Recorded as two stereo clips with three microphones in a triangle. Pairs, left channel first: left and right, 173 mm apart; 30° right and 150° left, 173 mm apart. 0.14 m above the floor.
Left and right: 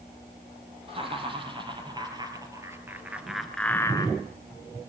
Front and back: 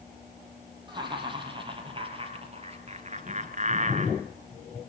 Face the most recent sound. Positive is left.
turn(degrees=135)